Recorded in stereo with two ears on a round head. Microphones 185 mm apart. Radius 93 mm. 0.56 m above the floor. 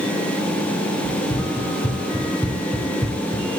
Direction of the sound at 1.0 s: 15° left (ahead or behind).